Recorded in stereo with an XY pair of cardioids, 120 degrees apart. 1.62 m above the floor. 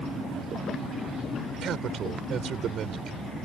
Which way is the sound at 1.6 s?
50° right.